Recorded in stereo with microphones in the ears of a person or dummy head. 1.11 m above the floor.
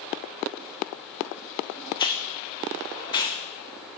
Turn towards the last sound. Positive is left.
turn(degrees=30)  # may be behind; listen again after turning